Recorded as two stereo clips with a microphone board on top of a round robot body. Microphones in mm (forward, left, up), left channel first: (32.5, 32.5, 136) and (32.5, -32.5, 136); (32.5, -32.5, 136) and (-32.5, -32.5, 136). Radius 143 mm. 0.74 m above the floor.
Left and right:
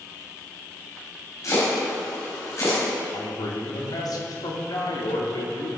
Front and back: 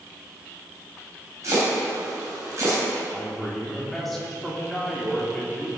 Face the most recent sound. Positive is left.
turn(degrees=90)